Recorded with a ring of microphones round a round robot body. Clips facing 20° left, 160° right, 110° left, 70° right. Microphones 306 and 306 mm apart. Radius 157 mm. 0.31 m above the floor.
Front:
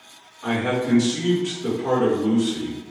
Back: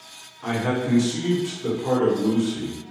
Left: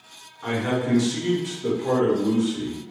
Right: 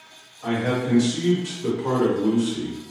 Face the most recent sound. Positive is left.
turn(degrees=-55)